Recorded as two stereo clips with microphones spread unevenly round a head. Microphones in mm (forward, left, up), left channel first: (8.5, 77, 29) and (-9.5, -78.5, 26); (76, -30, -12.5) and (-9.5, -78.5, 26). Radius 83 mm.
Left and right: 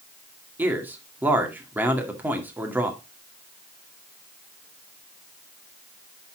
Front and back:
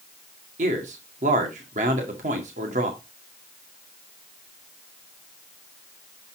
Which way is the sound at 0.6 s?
175° right.